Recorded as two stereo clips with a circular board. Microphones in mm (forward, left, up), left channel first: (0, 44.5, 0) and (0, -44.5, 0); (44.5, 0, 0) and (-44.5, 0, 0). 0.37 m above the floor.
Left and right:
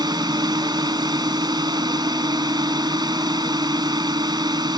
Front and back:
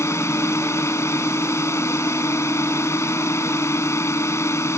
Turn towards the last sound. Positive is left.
turn(degrees=-55)